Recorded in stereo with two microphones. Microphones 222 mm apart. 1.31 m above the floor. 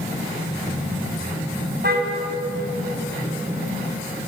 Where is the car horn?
45° right (ahead or behind), 5 m.